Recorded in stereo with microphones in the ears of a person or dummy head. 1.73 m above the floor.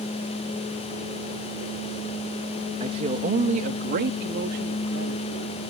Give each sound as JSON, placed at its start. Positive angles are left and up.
{"t": 2.8, "sound": "a man speaking", "side_deg": -30}